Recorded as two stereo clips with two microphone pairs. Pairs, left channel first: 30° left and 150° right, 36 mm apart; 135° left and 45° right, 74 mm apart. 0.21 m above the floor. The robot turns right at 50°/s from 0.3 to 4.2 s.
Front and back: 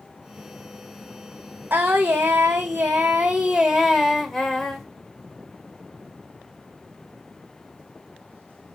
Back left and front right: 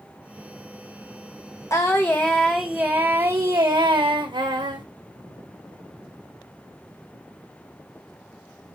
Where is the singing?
Straight behind, 2.0 m; by 4.8 s 55° right, 2.0 m.